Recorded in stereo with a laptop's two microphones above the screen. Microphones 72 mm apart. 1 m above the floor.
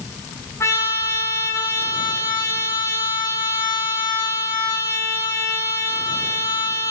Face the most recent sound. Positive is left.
turn(degrees=40)  # may be behind; listen again after turning